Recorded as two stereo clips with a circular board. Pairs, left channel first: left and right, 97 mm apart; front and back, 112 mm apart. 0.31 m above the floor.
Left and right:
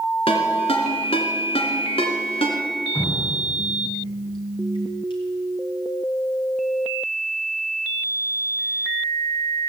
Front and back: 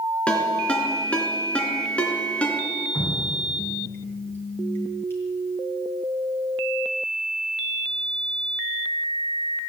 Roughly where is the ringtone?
Left.